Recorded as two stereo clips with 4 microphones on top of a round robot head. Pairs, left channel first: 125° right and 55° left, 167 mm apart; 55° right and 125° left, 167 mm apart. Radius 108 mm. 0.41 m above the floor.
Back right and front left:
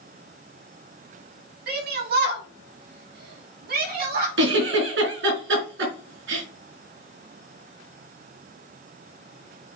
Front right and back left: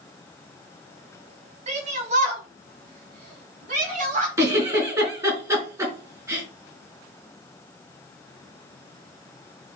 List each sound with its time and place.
1.7 s a shout: 80° left, 4 m; by 4.3 s 85° left, 5 m
4.4 s a giggle: 55° left, 4 m